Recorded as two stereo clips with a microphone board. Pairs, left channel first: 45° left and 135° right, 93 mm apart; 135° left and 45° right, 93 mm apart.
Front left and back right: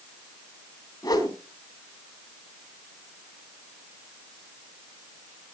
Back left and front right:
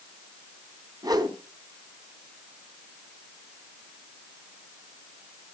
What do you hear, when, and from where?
1.0 s a whoosh: straight ahead, 3 m